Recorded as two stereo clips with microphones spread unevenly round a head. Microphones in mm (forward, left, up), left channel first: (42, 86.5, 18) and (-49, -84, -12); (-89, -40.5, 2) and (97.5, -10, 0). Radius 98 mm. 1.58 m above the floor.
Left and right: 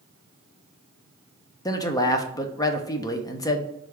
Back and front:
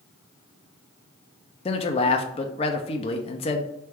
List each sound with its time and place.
1.6 s a man speaking: 130° left, 0.5 m